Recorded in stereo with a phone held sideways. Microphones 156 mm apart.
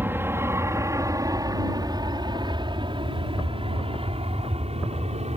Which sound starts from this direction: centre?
An aircraft, at 0.0 s.